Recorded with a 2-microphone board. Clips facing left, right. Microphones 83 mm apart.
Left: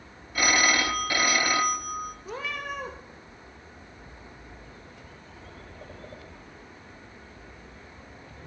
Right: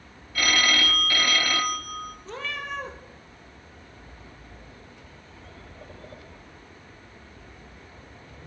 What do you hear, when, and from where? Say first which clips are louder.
0.3 s a phone ringing: left 1 dB; 20° left (ahead or behind), 0.7 m
2.2 s a cat meowing: even; 10° left (ahead or behind), 1.5 m